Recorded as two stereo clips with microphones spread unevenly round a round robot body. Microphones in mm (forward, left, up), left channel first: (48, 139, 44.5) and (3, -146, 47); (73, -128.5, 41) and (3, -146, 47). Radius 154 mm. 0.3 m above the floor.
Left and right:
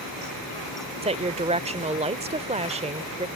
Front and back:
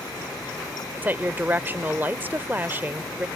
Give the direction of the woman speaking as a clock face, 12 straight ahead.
4 o'clock.